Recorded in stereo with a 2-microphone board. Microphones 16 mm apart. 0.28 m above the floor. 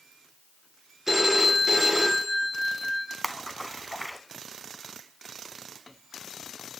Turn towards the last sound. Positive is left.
turn(degrees=0)  # may be behind; listen again after turning